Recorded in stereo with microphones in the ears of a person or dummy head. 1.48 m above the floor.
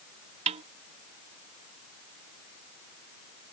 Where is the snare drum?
35° right (ahead or behind).